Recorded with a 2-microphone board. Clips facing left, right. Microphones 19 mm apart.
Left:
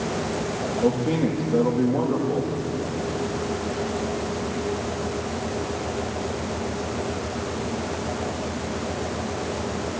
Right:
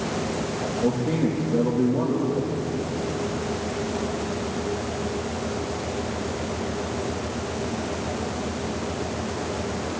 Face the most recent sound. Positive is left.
turn(degrees=80)